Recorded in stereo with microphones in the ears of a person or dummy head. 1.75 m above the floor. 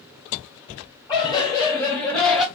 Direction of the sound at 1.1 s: 25° left (ahead or behind).